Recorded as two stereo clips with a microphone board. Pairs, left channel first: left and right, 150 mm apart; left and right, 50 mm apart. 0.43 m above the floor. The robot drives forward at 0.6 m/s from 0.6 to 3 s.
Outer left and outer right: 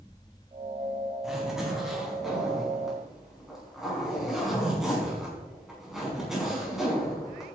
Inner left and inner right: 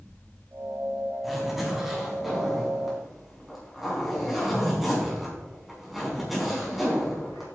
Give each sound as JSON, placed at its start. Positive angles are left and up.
{"t": 1.2, "sound": "a zipper", "side_deg": -5, "distance_m": 4.0}